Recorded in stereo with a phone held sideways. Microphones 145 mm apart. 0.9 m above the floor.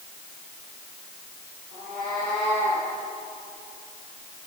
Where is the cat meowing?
65° right (ahead or behind), 8 m; by 2.9 s 60° right (ahead or behind), 7.5 m.